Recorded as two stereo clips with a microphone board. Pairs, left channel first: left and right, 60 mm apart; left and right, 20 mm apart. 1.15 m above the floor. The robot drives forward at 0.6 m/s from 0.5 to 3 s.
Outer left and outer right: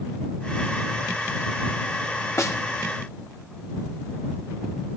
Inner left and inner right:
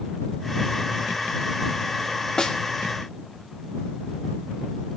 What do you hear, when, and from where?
2.4 s a snare drum: 55° left (ahead or behind), 1.8 m